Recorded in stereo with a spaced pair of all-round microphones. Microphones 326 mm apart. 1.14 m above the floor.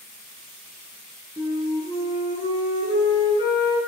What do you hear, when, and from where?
1.4 s a flute: 10° right (ahead or behind), 8.5 m